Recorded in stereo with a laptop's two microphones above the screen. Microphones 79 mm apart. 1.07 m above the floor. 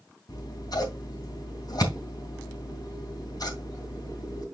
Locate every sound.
0.3 s scissors: 55° left (ahead or behind), 3 m